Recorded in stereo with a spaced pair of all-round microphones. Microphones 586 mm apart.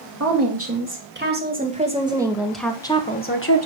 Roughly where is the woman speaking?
Right.